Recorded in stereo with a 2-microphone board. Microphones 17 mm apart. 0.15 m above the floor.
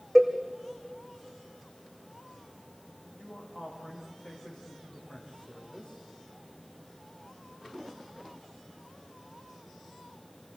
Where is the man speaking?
70° left (ahead or behind), 7.5 m.